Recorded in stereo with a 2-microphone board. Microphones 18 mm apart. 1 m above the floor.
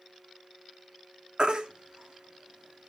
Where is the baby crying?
55° right (ahead or behind), 1.7 m.